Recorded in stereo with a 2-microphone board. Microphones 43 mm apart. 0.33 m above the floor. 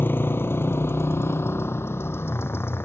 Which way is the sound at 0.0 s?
55° left (ahead or behind).